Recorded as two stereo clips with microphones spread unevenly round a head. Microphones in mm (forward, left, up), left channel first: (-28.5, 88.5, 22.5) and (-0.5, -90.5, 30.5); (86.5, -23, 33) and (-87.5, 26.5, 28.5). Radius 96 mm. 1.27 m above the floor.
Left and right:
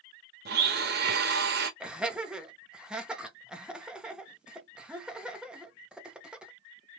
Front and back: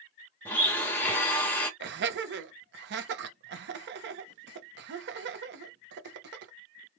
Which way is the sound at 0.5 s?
95° right.